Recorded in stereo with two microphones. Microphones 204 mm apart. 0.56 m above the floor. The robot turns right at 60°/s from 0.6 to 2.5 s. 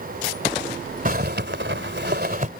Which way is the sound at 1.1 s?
130° right.